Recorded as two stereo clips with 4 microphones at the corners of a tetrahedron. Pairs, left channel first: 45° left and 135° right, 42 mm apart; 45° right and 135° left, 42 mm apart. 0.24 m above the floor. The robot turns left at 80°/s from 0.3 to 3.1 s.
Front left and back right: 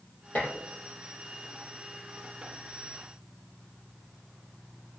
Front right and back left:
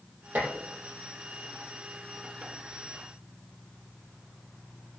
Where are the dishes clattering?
95° left, 5 m; by 0.5 s 80° left, 5 m.